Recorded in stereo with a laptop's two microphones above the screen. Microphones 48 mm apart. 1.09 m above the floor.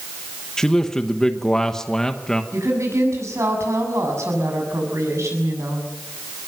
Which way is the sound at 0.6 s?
10° left (ahead or behind).